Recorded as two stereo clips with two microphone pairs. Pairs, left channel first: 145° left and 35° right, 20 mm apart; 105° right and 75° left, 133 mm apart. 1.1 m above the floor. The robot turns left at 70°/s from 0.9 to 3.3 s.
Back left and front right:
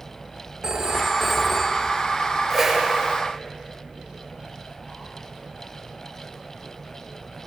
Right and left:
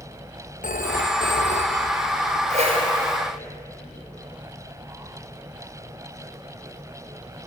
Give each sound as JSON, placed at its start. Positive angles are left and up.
{"t": 0.6, "sound": "a phone ringing", "azimuth_deg": -90, "distance_m": 1.1}
{"t": 2.5, "sound": "a whoosh", "azimuth_deg": 45, "distance_m": 5.5}